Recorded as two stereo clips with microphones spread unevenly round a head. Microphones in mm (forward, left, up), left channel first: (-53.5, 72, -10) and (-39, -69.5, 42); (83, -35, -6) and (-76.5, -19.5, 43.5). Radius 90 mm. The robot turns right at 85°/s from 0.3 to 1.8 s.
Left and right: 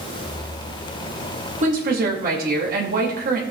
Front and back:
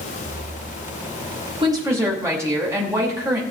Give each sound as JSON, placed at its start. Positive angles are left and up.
{"t": 1.6, "sound": "a woman speaking", "azimuth_deg": -125, "distance_m": 2.5}